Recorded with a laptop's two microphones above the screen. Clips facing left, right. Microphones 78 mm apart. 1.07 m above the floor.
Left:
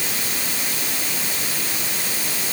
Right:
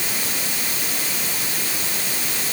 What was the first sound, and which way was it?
Only background noise.